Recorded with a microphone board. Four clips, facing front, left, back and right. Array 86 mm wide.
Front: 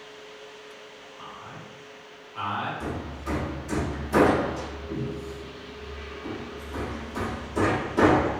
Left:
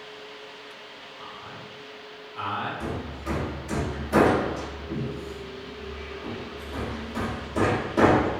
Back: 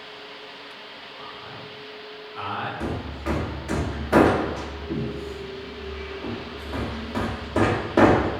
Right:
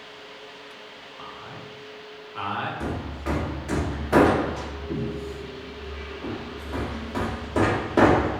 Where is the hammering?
150° right, 0.6 m.